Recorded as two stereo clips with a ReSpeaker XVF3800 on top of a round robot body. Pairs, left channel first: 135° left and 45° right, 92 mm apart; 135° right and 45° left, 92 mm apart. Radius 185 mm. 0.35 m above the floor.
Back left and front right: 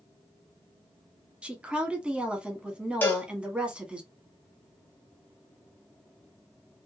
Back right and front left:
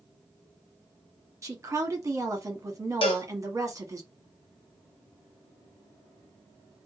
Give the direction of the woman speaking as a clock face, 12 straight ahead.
11 o'clock.